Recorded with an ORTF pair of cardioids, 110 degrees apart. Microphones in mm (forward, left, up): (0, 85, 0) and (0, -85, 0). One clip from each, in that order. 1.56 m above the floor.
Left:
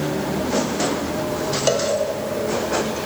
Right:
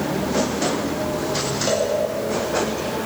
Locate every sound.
1.7 s a cowbell: 45° left, 4.5 m